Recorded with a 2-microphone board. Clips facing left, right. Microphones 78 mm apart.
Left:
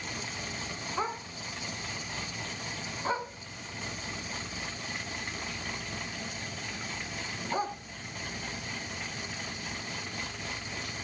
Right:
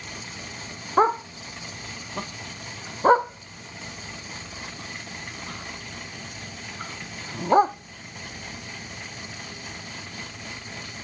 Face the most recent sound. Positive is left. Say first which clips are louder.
# right 15 dB
turn(degrees=-55)  # may be behind; listen again after turning